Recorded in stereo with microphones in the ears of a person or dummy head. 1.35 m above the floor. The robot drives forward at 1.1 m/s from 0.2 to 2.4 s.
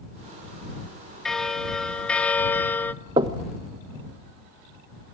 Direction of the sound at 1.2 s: 5° left (ahead or behind).